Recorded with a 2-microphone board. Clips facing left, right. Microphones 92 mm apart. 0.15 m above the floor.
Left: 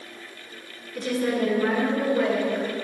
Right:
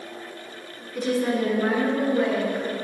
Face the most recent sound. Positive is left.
turn(degrees=5)  # may be behind; listen again after turning